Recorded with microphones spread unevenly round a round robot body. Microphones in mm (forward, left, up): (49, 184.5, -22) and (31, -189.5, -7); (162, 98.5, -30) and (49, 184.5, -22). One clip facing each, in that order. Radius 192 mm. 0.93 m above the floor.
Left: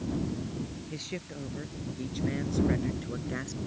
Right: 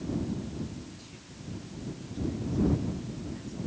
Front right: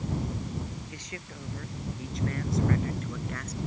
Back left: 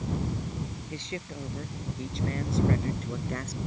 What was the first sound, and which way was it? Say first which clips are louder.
A man speaking: left 9 dB, back left 5 dB; 80° left.